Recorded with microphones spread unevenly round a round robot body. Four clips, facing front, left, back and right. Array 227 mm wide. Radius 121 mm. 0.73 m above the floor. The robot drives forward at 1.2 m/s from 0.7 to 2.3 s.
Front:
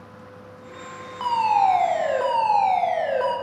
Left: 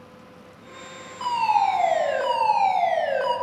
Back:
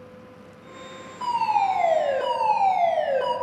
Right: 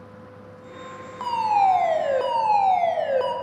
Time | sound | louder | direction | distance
1.2 | a fire alarm | right 1 dB, front 3 dB | 85° right | 3.5 m